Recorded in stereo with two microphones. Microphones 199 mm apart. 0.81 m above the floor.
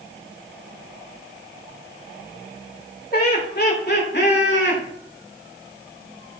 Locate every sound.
3.1 s laughter: 45° left (ahead or behind), 3 m; by 4.8 s 60° left (ahead or behind), 2.5 m